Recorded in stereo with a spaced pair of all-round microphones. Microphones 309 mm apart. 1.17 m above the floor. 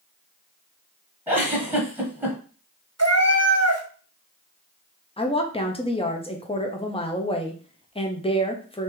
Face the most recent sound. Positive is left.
turn(degrees=20)  # may be behind; listen again after turning